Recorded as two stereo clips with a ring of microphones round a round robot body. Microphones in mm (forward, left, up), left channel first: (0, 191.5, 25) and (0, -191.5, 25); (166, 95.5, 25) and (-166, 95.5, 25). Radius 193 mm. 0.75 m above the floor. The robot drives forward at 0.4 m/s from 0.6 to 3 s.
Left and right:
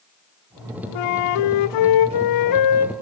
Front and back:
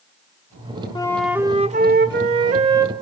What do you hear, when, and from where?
0.9 s a flute: 80° left, 0.6 m; by 2.9 s 140° left, 0.9 m